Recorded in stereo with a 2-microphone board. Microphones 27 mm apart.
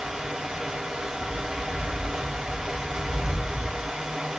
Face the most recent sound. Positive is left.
turn(degrees=-20)  # may be behind; listen again after turning